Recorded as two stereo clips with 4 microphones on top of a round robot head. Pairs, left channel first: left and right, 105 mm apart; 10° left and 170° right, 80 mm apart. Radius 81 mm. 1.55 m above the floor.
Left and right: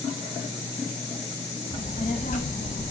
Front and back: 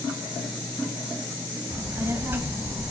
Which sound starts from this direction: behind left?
A child speaking, at 1.7 s.